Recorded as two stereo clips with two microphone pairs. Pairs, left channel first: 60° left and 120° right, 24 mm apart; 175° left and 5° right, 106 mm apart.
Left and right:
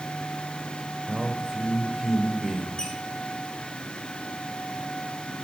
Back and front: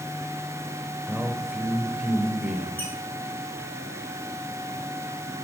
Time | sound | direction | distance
1.1 | a man speaking | 80° right | 0.9 m
2.8 | a squeak | 105° left | 3 m